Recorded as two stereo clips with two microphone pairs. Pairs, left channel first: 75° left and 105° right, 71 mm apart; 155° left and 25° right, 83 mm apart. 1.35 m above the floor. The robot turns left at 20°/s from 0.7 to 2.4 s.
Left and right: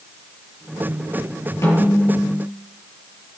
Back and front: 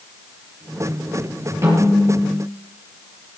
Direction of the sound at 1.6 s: 30° left.